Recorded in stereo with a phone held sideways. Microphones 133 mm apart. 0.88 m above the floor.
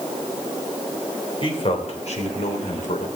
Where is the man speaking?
45° left (ahead or behind), 3 m; by 3.1 s 80° left, 3 m.